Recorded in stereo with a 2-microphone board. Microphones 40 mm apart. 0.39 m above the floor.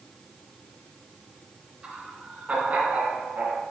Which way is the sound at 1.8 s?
20° right (ahead or behind).